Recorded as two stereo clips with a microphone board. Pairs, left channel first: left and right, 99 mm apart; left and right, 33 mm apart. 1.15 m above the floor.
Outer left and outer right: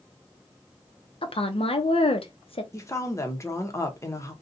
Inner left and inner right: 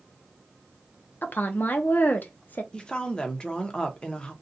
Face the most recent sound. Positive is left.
turn(degrees=30)  # may be behind; listen again after turning